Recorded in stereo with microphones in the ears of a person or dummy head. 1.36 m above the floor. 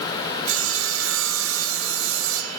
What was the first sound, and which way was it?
Sawing, 85° right.